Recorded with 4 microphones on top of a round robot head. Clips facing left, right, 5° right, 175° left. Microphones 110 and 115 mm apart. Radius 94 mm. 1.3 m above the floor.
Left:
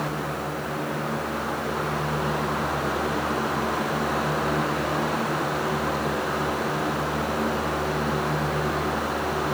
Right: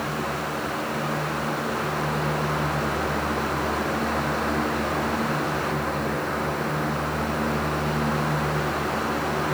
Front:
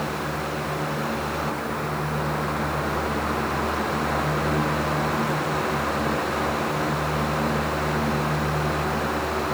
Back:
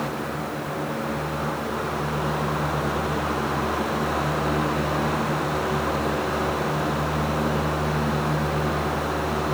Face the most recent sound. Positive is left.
No sound to turn to.